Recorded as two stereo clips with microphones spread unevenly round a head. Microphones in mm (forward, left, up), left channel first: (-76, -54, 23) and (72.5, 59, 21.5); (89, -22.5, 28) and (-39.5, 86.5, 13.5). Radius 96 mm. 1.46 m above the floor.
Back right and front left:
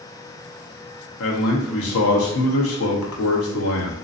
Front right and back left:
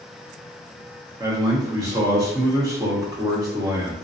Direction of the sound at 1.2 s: 150° right.